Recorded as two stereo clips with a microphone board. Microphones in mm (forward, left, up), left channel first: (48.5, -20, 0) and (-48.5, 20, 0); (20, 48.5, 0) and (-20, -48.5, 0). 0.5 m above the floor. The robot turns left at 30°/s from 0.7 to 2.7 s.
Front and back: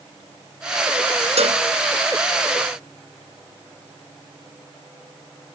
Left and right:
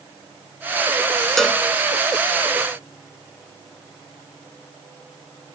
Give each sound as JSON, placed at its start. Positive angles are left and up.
{"t": 1.4, "sound": "a cowbell", "azimuth_deg": 155}